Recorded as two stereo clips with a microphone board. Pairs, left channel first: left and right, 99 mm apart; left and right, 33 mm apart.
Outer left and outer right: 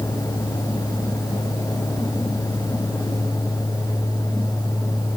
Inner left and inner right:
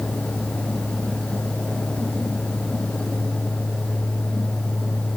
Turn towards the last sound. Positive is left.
No sound to turn to.